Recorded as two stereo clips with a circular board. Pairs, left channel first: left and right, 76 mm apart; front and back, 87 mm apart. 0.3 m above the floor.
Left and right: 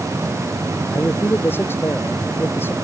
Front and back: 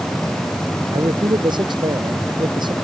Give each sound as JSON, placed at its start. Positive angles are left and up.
{"t": 0.9, "sound": "a man speaking", "azimuth_deg": 150}